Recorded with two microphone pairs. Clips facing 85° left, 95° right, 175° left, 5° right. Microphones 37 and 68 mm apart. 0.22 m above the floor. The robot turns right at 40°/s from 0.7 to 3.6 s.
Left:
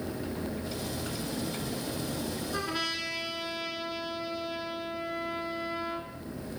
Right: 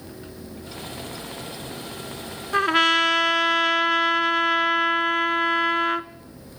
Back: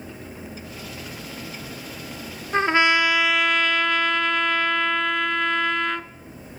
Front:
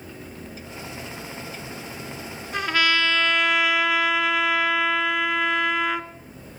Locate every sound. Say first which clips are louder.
2.5 s a trumpet: right 17 dB, back 4 dB; 130° right, 1.1 m; by 6.1 s 85° right, 1.1 m